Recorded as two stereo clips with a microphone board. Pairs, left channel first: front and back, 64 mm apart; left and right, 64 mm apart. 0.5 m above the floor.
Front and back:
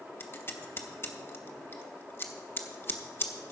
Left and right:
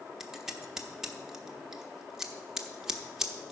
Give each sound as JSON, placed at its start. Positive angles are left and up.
{"t": 0.2, "sound": "scissors", "azimuth_deg": -10, "distance_m": 1.1}